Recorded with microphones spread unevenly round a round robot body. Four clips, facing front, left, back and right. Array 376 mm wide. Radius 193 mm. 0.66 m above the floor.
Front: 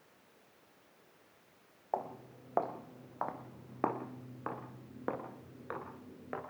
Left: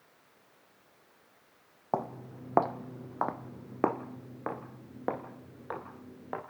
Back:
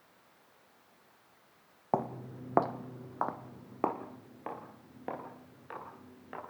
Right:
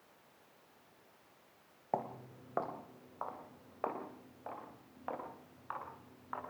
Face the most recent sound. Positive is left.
turn(degrees=55)